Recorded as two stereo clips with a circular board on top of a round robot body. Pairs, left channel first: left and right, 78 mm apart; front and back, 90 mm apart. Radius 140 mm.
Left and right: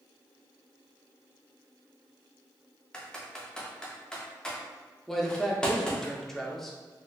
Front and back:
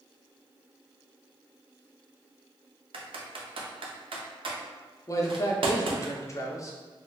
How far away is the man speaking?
About 0.7 m.